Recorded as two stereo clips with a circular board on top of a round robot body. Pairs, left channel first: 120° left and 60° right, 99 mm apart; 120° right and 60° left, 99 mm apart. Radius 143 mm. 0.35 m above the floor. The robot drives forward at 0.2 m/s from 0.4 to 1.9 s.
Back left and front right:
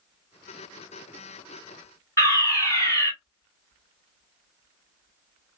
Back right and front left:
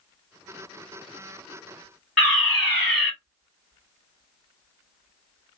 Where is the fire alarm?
160° left, 2.5 m.